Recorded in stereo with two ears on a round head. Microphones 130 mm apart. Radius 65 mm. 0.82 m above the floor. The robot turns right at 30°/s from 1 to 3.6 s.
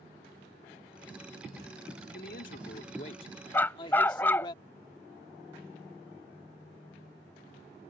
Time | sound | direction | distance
2.1 | a man speaking | 100° left | ?
3.5 | a dog barking | 15° left (ahead or behind) | ?